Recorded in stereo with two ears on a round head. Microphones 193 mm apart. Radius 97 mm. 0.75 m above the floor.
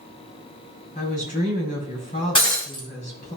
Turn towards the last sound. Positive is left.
turn(degrees=25)  # may be behind; listen again after turning